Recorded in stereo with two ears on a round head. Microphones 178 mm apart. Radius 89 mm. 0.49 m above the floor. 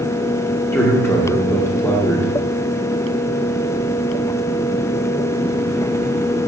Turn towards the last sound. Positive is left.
turn(degrees=15)  # may be behind; listen again after turning